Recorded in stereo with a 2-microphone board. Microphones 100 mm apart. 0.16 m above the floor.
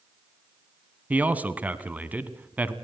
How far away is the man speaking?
About 1.0 m.